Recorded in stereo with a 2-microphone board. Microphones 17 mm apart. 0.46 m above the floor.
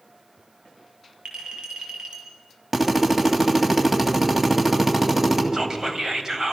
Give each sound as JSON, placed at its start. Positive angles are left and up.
{"t": 1.2, "sound": "a clink", "side_deg": -60, "distance_m": 6.0}
{"t": 2.7, "sound": "a drill", "side_deg": -25, "distance_m": 3.0}
{"t": 5.5, "sound": "whispering", "side_deg": -30, "distance_m": 3.0}